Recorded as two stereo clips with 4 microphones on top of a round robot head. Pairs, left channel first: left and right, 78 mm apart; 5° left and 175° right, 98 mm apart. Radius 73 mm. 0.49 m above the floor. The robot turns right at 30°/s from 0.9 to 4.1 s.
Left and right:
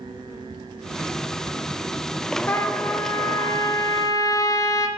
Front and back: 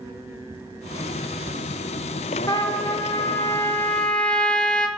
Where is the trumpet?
30° left, 0.6 m; by 4.9 s 80° left, 0.6 m.